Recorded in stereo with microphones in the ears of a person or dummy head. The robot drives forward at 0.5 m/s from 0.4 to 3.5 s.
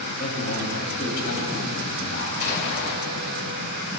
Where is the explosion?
55° left (ahead or behind), 2.5 m; by 2.9 s 60° left (ahead or behind), 2.5 m.